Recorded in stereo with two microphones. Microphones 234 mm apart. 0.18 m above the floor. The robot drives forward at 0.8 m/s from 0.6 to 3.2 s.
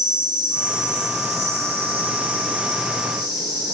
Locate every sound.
0.0 s an insect: 35° right (ahead or behind), 1.8 m; by 3.8 s 15° right (ahead or behind), 3.5 m